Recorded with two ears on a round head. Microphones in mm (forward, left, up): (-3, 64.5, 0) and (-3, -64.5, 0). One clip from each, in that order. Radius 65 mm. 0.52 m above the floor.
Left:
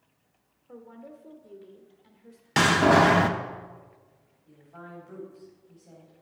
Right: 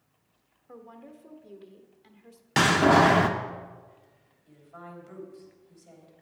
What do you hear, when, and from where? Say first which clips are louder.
0.7 s a woman speaking: left 1 dB; 35° right (ahead or behind), 1.2 m
2.6 s a door slam: even; centre (ahead or behind), 0.5 m
4.5 s a woman speaking: even; 70° right (ahead or behind), 3 m